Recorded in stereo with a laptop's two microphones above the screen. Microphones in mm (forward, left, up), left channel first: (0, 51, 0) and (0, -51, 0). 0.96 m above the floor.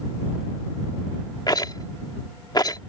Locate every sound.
1.5 s a rattle: 40° left (ahead or behind)